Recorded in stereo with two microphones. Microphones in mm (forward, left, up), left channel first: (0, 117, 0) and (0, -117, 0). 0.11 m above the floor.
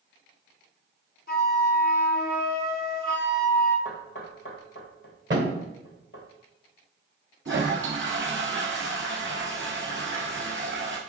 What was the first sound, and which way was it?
A flute, 40° left (ahead or behind).